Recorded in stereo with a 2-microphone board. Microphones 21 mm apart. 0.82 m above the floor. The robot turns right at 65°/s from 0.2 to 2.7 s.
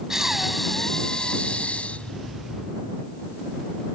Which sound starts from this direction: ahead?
Breathing, at 0.1 s.